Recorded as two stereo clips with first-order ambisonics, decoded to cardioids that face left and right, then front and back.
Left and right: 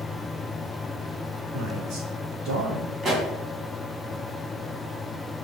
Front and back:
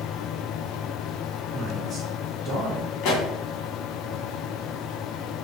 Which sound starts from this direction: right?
A man speaking, at 1.5 s.